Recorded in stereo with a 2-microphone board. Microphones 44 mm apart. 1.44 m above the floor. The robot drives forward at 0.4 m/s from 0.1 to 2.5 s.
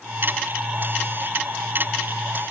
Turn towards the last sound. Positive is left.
No sound to turn to.